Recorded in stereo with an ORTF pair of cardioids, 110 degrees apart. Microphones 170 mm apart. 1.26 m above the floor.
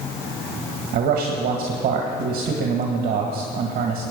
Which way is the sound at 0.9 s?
60° right.